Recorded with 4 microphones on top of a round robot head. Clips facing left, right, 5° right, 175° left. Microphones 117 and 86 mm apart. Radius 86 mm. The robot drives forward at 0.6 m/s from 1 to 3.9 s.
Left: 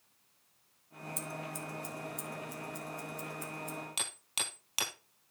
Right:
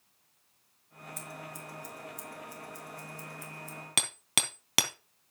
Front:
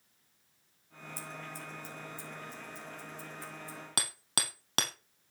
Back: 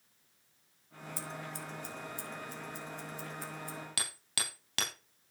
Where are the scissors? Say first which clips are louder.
Left 3 dB, back 1 dB; 150° left, 3 m; by 3.8 s 160° left, 4 m.